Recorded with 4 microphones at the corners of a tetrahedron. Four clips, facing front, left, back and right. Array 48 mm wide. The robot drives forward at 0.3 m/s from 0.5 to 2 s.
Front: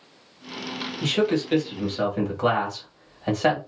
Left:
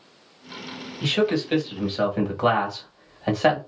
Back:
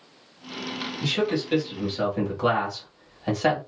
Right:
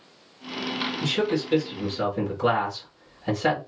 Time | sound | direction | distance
1.0 | a man speaking | 65° left | 1.6 m